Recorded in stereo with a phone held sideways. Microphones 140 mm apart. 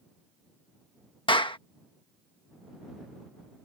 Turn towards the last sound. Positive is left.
turn(degrees=35)  # may be behind; listen again after turning